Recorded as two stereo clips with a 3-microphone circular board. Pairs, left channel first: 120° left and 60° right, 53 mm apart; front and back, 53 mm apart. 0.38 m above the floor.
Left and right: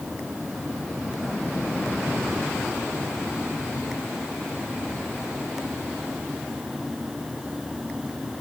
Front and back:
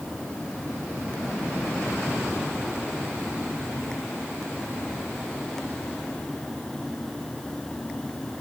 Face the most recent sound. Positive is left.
No sound to turn to.